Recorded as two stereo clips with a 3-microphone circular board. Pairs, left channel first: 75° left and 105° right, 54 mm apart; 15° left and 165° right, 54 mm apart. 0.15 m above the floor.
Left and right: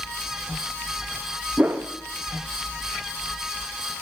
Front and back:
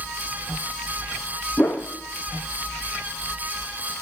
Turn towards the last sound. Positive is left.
turn(degrees=-45)